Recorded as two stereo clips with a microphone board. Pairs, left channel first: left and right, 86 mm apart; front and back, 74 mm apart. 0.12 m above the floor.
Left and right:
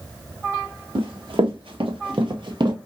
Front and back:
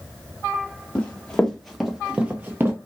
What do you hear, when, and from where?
0.9 s running footsteps: 75° right, 1.3 m; by 2.8 s 125° right, 1.1 m